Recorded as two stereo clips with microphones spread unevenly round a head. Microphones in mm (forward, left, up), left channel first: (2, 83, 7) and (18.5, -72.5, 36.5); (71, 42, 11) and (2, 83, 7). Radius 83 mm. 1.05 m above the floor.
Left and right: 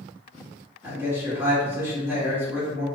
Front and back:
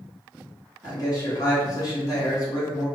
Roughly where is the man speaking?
Ahead.